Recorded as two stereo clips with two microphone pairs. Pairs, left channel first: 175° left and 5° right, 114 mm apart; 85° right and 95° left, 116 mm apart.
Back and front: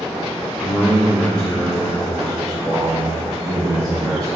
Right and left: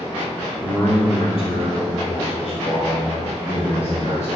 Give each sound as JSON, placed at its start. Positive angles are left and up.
{"t": 0.6, "sound": "a man speaking", "azimuth_deg": -110, "distance_m": 1.1}